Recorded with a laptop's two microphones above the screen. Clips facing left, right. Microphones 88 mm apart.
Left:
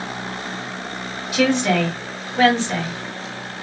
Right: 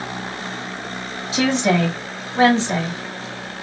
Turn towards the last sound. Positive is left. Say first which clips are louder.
# even
turn(degrees=-25)  # may be behind; listen again after turning